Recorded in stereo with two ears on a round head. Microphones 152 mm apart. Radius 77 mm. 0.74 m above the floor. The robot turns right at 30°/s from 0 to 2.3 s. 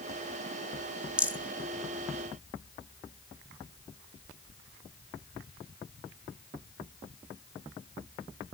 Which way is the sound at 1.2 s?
5° right (ahead or behind).